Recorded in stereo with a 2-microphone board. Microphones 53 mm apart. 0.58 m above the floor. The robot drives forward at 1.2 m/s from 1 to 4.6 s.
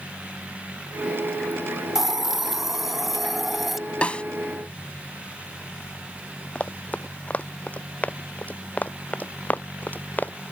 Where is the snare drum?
25° left (ahead or behind); by 4.2 s 20° left (ahead or behind).